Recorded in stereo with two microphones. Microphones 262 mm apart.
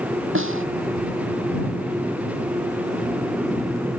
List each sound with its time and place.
0.3 s a snare drum: 50° right (ahead or behind)